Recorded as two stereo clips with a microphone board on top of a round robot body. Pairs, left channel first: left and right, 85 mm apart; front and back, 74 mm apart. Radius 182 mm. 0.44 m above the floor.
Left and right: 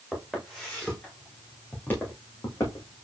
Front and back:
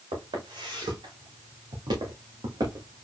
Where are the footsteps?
175° right, 3 m; by 3.0 s 140° left, 2 m.